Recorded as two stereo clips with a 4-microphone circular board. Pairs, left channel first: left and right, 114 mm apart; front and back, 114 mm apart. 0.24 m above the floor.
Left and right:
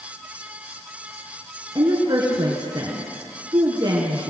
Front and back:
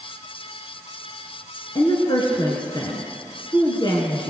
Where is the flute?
I don't hear a flute.